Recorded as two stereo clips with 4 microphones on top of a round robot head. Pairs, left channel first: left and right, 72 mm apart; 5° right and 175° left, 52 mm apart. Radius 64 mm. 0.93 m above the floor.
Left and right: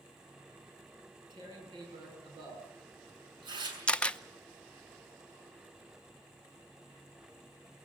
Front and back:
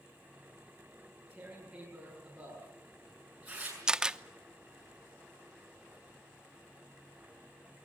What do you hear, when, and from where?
1.0 s tearing paper: 105° right, 7 m
3.9 s a camera shutter: 125° left, 0.9 m